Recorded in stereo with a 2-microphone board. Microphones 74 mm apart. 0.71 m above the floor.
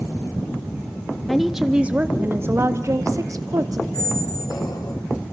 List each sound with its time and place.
1.3 s a woman speaking: 5° left (ahead or behind), 0.9 m; by 3.8 s 60° right (ahead or behind), 1.6 m
3.9 s a squeak: 65° left (ahead or behind), 3.5 m